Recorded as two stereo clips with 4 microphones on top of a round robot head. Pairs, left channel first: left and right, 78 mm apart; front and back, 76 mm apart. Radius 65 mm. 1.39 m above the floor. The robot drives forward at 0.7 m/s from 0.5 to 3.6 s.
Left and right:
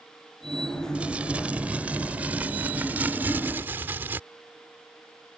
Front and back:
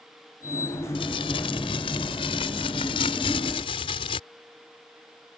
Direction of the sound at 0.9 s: 10° right.